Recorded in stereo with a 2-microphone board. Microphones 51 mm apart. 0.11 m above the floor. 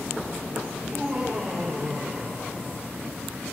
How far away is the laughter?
About 5.5 m.